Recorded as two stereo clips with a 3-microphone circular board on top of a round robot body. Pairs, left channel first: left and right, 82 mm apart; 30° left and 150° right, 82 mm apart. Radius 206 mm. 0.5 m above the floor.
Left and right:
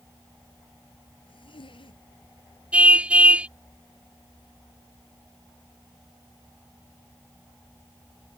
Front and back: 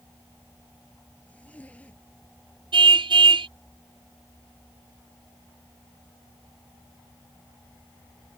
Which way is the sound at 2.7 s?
165° right.